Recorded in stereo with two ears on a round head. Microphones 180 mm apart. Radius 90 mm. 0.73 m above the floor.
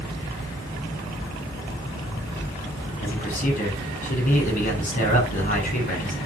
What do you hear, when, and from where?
3.0 s a man speaking: 40° left (ahead or behind), 8.5 m